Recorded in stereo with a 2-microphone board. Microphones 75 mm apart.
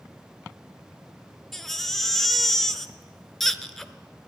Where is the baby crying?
5° left (ahead or behind), 0.5 m.